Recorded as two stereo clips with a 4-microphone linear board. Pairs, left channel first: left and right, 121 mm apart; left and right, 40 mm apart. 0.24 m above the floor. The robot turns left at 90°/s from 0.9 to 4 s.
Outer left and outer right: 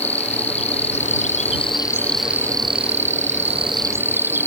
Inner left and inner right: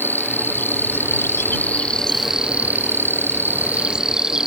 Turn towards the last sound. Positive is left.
turn(degrees=-160)